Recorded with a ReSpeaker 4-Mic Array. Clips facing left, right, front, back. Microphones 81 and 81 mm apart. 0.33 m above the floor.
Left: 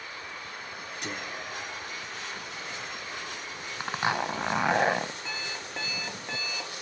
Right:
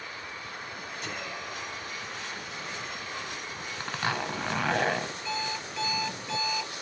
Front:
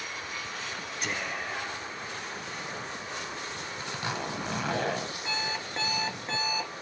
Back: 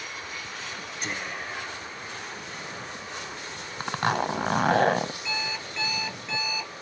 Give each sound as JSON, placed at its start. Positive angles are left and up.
{"t": 1.0, "sound": "whispering", "azimuth_deg": 90, "distance_m": 6.0}
{"t": 3.8, "sound": "a zipper", "azimuth_deg": 160, "distance_m": 1.0}
{"t": 5.2, "sound": "an alarm clock", "azimuth_deg": 50, "distance_m": 3.5}